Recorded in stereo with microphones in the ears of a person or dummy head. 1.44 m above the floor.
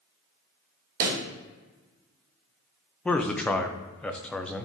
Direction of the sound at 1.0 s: 55° right (ahead or behind).